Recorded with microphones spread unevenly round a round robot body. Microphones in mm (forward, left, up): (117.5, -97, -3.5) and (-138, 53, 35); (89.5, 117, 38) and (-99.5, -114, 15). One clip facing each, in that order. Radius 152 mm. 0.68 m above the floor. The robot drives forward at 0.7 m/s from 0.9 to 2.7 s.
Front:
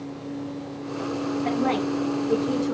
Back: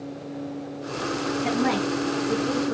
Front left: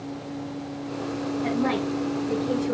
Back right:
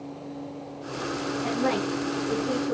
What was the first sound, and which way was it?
A woman speaking, 90° left.